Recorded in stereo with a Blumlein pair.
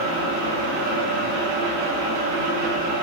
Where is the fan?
45° right, 0.8 m.